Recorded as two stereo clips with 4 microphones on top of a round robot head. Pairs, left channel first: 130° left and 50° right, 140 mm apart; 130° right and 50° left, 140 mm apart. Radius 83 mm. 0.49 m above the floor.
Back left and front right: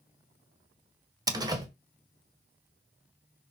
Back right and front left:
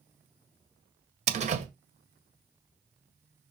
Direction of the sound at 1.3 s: 15° left.